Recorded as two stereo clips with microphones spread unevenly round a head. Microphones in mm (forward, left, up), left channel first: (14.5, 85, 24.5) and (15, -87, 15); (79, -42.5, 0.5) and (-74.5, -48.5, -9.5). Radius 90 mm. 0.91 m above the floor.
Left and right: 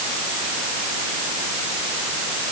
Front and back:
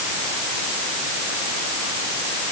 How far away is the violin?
No violin in this recording.